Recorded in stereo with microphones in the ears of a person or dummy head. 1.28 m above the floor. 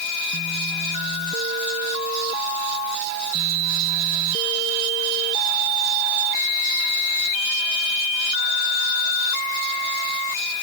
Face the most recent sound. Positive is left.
No sound to turn to.